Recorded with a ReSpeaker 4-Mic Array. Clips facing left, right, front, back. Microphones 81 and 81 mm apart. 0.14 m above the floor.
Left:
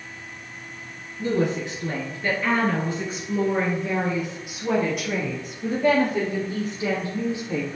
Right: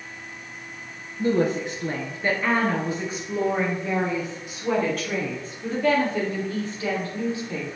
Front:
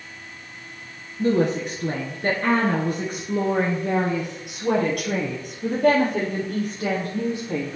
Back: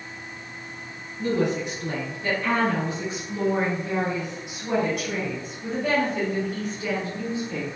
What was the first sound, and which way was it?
A woman speaking, 40° right.